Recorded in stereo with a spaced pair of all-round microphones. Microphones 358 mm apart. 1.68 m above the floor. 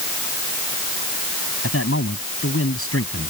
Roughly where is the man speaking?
Left.